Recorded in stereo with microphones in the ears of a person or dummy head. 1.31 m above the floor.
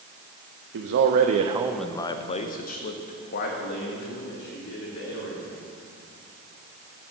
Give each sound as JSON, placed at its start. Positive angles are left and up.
{"t": 0.7, "sound": "a man speaking", "side_deg": -70, "distance_m": 0.8}